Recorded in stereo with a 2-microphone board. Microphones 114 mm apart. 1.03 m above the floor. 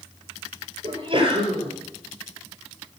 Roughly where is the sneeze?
Right.